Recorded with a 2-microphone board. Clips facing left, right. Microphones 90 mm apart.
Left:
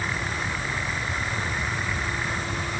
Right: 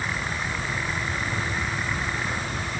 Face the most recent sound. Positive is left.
No sound to turn to.